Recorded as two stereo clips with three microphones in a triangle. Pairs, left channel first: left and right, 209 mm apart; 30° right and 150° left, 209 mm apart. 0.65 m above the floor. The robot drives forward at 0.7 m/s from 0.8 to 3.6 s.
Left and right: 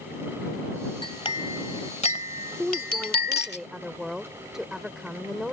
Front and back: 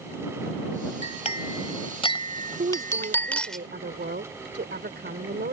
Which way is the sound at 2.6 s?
175° right.